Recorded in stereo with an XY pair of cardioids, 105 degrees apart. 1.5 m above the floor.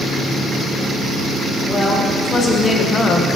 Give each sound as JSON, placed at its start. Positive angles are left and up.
{"t": 1.6, "sound": "a woman speaking", "azimuth_deg": 20, "distance_m": 1.9}